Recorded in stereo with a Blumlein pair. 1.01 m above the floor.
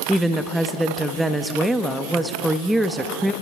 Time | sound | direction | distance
0.1 | a woman speaking | 5° right | 1.2 m